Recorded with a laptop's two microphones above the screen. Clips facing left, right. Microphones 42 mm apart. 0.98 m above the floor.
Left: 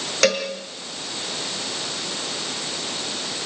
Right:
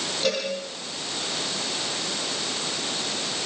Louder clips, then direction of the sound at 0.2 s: Left 6 dB; 75° left (ahead or behind).